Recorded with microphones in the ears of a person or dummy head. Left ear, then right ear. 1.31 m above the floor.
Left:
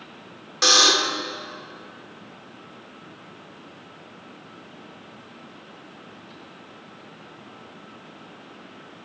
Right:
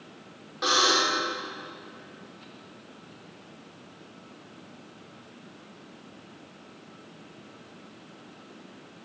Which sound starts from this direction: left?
A buzzer, at 0.6 s.